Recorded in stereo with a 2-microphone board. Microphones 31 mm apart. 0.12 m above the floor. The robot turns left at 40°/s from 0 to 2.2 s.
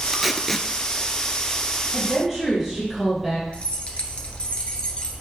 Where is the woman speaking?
15° right (ahead or behind), 3.5 m; by 3.4 s 5° right (ahead or behind), 3.5 m.